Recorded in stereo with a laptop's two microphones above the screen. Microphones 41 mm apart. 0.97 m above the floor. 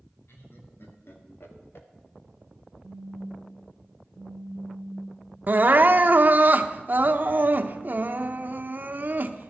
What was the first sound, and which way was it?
Laughter, 70° left (ahead or behind).